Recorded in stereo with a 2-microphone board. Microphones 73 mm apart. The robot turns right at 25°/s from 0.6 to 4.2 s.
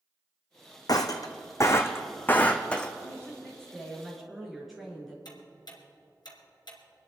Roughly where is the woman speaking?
Behind left.